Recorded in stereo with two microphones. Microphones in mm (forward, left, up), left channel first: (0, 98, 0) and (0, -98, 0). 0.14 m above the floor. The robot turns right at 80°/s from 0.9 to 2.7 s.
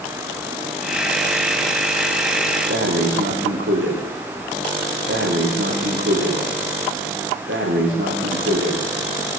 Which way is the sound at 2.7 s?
75° right (ahead or behind).